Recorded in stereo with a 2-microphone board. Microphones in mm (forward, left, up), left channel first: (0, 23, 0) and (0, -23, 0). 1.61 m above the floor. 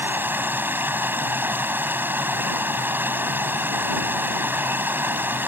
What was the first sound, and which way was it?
Running water, 50° right (ahead or behind).